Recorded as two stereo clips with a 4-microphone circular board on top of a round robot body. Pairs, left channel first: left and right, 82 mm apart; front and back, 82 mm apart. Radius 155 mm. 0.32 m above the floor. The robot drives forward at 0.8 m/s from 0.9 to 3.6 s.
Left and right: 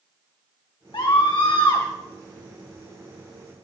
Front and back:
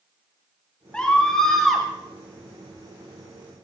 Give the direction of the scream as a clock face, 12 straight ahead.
9 o'clock.